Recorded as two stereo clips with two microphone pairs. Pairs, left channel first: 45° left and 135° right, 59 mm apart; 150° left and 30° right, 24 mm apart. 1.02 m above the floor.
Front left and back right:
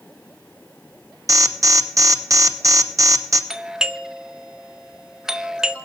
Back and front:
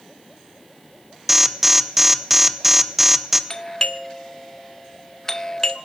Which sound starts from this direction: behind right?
An alarm, at 1.3 s.